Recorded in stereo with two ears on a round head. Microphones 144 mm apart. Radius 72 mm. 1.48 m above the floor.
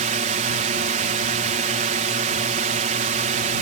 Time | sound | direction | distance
0.0 | a drone | 50° right (ahead or behind) | ?